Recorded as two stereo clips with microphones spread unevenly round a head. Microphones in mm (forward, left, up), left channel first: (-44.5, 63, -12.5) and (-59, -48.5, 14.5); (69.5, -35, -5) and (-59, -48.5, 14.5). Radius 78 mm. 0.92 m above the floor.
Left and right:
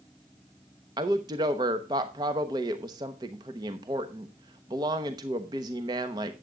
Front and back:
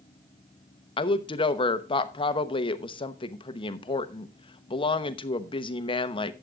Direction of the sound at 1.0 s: 30° right.